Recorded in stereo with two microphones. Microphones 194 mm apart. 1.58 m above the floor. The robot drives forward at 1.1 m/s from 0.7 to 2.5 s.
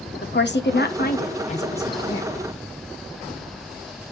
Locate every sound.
0.2 s a woman speaking: 70° left (ahead or behind), 1.1 m; by 2.3 s 25° left (ahead or behind), 2.5 m